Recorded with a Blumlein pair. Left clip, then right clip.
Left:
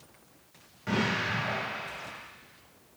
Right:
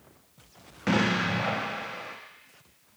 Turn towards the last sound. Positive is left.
turn(degrees=-60)